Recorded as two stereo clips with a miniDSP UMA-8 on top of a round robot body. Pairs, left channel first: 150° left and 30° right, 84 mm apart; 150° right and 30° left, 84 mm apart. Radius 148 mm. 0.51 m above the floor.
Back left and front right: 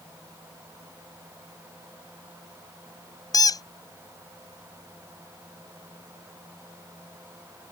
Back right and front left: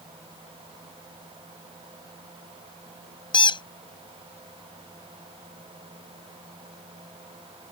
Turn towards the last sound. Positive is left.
turn(degrees=-170)